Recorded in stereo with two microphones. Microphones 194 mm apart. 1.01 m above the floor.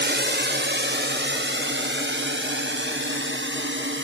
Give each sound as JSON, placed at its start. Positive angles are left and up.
{"t": 0.0, "sound": "a drone", "side_deg": -65}